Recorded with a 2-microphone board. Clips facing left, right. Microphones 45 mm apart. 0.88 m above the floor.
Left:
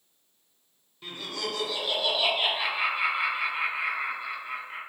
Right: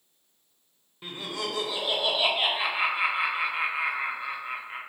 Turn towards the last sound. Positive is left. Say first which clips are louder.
# right 1 dB
turn(degrees=-20)  # may be behind; listen again after turning